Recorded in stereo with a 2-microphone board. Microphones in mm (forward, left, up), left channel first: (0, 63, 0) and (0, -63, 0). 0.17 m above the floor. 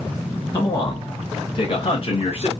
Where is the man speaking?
30° left (ahead or behind), 2.0 m; by 2.5 s 50° left (ahead or behind), 1.9 m.